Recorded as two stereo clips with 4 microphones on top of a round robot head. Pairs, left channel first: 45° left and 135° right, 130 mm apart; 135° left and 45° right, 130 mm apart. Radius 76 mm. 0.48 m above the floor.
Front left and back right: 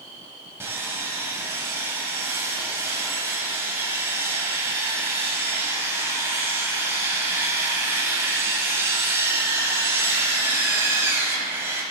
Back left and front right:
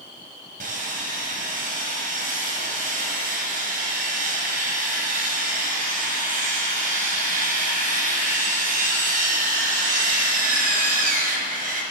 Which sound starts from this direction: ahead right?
Sawing, at 0.6 s.